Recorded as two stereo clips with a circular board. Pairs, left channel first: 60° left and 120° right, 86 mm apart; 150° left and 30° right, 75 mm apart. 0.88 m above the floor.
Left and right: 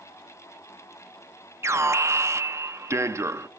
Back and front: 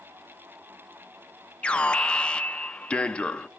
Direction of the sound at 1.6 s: 145° right.